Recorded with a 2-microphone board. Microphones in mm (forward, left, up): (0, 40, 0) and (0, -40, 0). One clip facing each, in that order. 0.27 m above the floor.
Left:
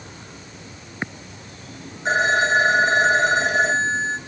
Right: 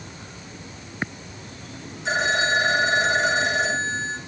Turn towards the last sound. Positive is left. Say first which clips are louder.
# left 4 dB
turn(degrees=50)  # may be behind; listen again after turning